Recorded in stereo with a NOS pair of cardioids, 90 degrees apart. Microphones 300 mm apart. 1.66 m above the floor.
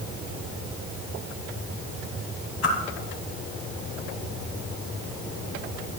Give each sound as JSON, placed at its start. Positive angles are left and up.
{"t": 2.6, "sound": "a whoosh", "azimuth_deg": 55, "distance_m": 3.0}